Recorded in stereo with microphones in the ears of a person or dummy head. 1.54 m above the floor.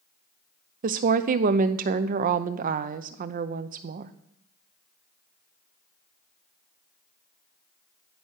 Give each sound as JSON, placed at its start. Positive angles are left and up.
{"t": 0.8, "sound": "a woman speaking", "side_deg": -45, "distance_m": 0.7}